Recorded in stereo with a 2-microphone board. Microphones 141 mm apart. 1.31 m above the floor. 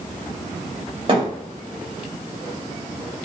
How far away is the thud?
About 2 m.